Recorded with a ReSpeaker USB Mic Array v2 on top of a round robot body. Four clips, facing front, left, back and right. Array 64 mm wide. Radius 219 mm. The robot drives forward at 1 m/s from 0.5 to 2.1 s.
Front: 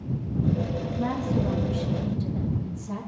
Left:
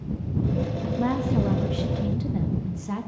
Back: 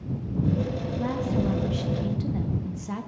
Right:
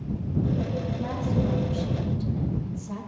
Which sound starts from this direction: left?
A woman speaking, at 0.8 s.